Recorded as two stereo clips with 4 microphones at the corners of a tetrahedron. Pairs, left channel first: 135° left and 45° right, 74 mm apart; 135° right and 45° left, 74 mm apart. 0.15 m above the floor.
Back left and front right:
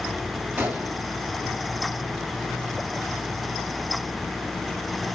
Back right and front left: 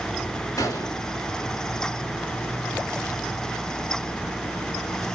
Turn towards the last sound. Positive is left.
turn(degrees=-110)